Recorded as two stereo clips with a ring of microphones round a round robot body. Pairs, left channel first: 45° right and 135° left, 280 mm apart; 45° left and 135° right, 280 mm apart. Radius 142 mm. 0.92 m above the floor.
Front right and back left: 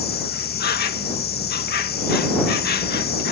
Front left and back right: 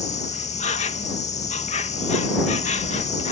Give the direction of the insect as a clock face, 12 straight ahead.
12 o'clock.